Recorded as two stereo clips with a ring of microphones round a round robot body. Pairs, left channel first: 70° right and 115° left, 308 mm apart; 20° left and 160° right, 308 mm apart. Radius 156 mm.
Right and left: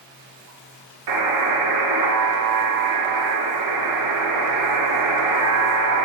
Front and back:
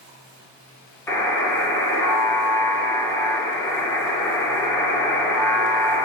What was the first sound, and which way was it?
A buzzer, 105° left.